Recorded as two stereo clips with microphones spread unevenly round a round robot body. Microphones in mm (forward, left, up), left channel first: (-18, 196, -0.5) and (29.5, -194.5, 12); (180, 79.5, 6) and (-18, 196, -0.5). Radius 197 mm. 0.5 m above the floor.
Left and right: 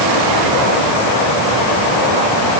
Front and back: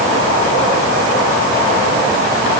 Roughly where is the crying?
I don't hear crying.